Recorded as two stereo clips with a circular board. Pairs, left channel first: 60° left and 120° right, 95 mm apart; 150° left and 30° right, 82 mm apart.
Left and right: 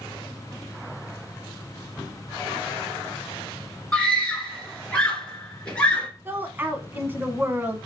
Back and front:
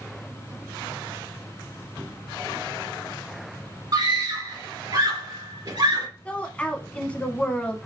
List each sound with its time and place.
3.9 s a scream: 15° right, 2.5 m
6.2 s a woman speaking: 155° right, 1.0 m